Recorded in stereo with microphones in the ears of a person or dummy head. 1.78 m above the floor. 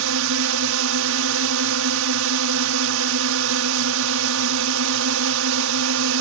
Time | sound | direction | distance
0.0 | a drone | 70° right (ahead or behind) | ?